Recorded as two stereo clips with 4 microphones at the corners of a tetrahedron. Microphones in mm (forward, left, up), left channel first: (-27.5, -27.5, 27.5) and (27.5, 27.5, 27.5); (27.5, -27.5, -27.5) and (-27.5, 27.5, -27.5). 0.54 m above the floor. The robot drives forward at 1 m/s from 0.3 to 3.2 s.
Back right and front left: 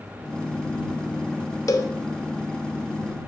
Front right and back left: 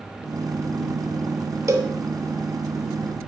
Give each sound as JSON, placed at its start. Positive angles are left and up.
{"t": 1.7, "sound": "a cowbell", "azimuth_deg": 180, "distance_m": 0.6}